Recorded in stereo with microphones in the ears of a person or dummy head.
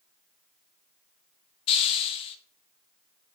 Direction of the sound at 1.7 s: 30° left (ahead or behind).